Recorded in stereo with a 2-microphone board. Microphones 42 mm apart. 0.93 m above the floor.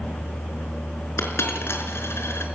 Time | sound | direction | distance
1.2 | a dropped coin | 85° left | 4.5 m